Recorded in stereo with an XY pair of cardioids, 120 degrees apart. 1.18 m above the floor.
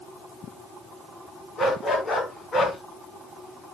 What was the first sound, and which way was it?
A dog barking, 35° left.